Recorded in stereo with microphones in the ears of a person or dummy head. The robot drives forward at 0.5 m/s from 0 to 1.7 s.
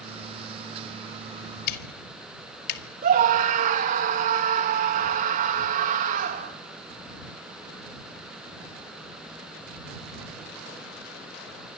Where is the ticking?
55° left (ahead or behind), 2 m.